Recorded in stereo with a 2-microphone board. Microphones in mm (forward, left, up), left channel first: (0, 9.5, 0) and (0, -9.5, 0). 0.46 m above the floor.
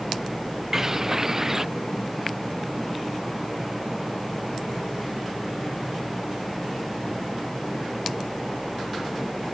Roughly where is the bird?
Right.